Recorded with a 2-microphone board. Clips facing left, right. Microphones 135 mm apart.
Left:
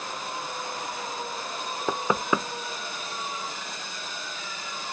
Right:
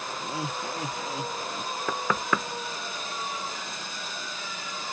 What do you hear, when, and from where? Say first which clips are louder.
0.2 s laughter: right 2 dB; 80° right
1.9 s knocking: left 3 dB; 20° left (ahead or behind)